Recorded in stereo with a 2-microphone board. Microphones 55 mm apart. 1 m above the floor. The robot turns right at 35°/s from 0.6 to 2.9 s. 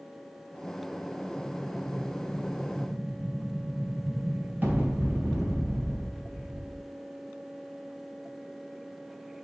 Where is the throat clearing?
I don't hear throat clearing.